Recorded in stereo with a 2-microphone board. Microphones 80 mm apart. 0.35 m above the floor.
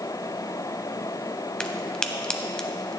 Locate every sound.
1.6 s a crack: 10° left (ahead or behind), 0.8 m